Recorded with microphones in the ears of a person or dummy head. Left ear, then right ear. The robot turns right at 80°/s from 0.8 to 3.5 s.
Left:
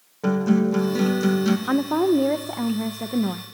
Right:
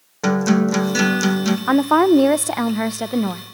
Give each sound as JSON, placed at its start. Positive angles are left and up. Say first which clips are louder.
{"t": 0.2, "sound": "a guitar", "louder": "right 3 dB", "azimuth_deg": -70, "distance_m": 1.7}
{"t": 1.7, "sound": "a woman speaking", "louder": "right 8 dB", "azimuth_deg": -150, "distance_m": 0.7}